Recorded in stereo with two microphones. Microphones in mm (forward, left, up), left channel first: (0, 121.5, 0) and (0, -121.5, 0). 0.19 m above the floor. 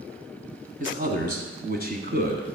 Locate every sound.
0.8 s a man speaking: 35° right (ahead or behind), 1.3 m; by 2.5 s 40° right (ahead or behind), 1.5 m